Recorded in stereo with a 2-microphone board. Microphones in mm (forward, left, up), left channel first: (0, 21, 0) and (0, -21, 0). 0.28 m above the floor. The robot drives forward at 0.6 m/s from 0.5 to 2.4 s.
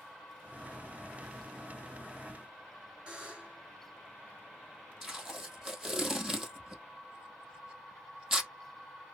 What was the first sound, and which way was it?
A buzzer, 20° right (ahead or behind).